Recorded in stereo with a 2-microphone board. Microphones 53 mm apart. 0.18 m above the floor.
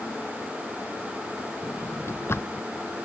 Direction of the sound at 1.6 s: 55° left (ahead or behind).